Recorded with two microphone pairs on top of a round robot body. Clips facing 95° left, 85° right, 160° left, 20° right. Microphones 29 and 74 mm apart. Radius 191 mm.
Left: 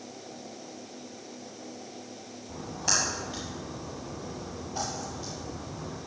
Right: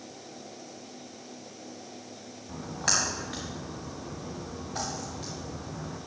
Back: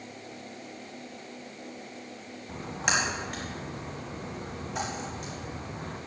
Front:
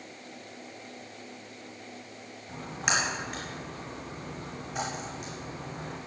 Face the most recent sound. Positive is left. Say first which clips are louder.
# right 1 dB, back 1 dB
turn(degrees=-110)